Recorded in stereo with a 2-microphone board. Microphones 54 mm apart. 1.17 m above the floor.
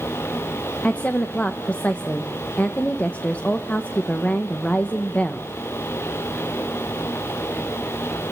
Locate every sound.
0.8 s a woman speaking: 25° left (ahead or behind), 1.3 m